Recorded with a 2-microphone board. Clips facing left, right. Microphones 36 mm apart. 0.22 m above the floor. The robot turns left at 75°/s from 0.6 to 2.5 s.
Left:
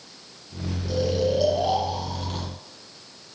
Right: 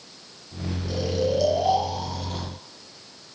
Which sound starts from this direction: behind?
Snoring, at 0.9 s.